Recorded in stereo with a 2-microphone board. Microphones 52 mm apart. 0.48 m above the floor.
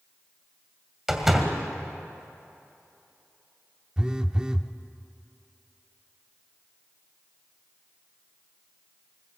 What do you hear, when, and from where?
1.1 s a door slam: 5° right (ahead or behind), 2 m
4.0 s a phone buzzing: 15° right (ahead or behind), 0.7 m